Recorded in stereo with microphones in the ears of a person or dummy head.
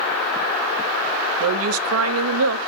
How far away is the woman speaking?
About 0.5 m.